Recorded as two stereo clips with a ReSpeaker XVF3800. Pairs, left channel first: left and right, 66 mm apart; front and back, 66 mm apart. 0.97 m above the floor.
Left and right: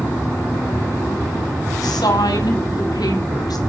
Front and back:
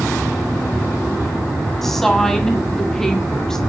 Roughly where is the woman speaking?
Left.